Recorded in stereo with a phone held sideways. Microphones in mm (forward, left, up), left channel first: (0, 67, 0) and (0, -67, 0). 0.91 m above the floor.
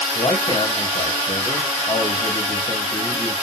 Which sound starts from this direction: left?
A man speaking, at 0.1 s.